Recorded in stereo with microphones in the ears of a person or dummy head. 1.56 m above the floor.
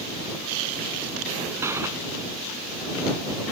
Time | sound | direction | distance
1.6 | a gunshot | 15° right (ahead or behind) | ?